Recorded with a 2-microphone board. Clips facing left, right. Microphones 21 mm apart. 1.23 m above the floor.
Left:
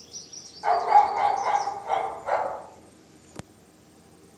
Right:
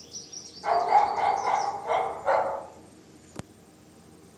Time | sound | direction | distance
0.6 | a dog barking | 55° left (ahead or behind) | 1.2 m